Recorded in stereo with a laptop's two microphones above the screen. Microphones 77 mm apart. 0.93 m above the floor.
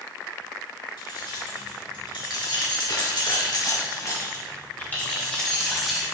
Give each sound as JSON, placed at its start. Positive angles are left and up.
{"t": 1.0, "sound": "keys jangling", "side_deg": 80, "distance_m": 3.0}